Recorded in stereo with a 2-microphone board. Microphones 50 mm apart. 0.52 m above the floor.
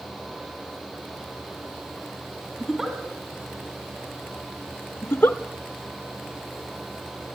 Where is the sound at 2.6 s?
5° right (ahead or behind), 2 m.